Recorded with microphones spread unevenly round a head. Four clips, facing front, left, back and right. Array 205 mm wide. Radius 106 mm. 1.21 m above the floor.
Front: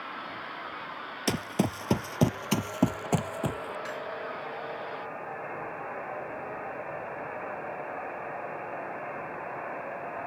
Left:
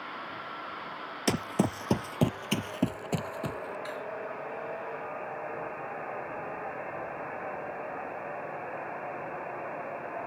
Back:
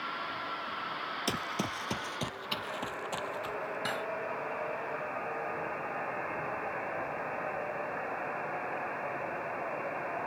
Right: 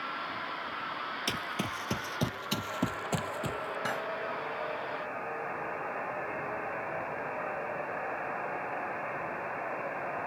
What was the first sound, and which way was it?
Running footsteps, 65° left.